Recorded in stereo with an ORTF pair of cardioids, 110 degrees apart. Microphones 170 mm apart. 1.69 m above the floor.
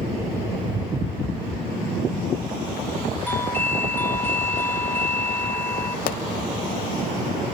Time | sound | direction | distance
3.3 | a doorbell | 10° left | 3 m
6.1 | a pop | 60° left | 2.5 m